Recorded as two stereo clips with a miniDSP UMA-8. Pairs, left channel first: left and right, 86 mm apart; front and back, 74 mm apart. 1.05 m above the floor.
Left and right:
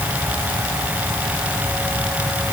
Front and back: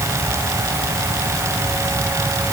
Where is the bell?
I don't hear a bell.